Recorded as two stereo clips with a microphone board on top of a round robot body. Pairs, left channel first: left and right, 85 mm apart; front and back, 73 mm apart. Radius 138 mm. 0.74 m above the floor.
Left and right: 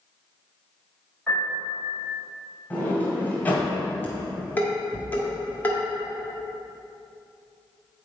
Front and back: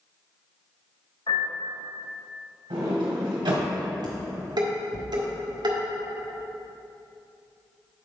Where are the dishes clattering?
160° left, 1.7 m.